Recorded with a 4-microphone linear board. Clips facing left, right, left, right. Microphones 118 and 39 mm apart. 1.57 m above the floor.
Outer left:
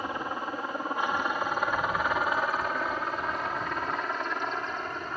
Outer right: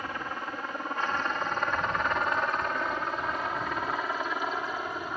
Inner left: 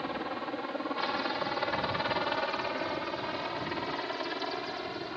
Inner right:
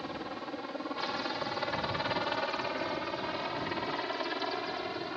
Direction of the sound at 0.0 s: 20° left (ahead or behind).